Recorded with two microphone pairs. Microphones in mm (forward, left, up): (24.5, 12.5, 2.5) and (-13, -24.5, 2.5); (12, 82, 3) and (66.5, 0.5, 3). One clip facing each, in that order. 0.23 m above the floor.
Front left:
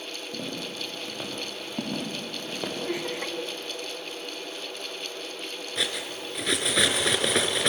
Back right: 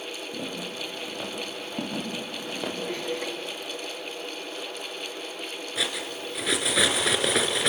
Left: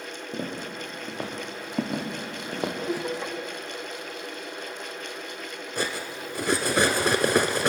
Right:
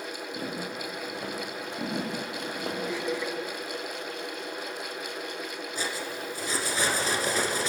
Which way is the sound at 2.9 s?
115° left.